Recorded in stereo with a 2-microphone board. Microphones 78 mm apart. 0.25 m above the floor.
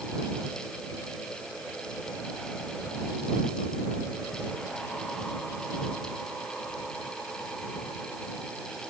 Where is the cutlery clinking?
I don't hear cutlery clinking.